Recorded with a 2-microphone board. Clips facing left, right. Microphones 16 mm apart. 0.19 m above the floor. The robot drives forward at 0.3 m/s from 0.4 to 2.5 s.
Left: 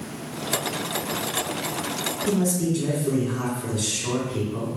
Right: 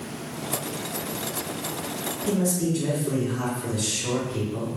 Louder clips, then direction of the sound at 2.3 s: Left 1 dB; 40° left (ahead or behind).